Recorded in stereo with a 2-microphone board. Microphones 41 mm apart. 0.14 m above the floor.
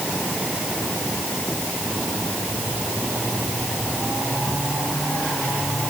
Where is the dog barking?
No dog barking in this recording.